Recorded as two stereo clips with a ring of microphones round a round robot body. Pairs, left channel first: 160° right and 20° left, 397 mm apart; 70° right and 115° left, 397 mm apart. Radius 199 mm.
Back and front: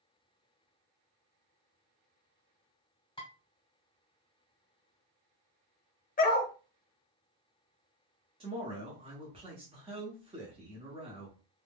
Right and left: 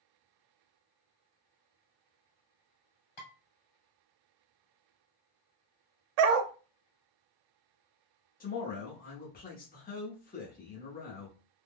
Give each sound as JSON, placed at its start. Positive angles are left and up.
{"t": 3.2, "sound": "dishes clattering", "azimuth_deg": -80, "distance_m": 1.8}
{"t": 6.2, "sound": "a dog barking", "azimuth_deg": 130, "distance_m": 0.5}
{"t": 8.4, "sound": "a man speaking", "azimuth_deg": -35, "distance_m": 0.8}